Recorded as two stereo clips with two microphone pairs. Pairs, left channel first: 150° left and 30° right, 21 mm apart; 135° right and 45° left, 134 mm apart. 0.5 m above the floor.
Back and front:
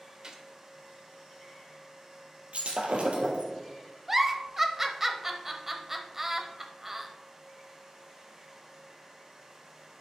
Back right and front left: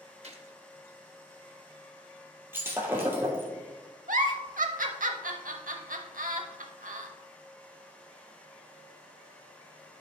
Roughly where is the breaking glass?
Ahead right.